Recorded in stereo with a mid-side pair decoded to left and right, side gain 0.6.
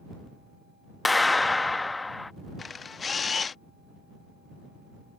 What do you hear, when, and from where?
1.1 s a clap: 15° left
2.6 s a camera shutter: 25° left